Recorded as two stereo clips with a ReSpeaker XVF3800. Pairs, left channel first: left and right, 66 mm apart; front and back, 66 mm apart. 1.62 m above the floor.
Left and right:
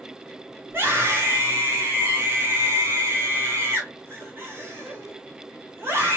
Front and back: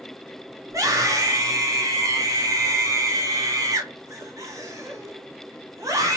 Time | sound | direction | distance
0.7 | a scream | 145° right | 1.8 m